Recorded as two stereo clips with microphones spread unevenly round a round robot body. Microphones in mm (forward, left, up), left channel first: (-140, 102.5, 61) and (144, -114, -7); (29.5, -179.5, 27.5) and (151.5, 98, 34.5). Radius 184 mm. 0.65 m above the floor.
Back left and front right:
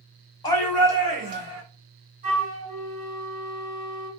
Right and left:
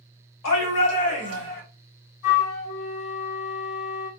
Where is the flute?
100° right, 1.6 m.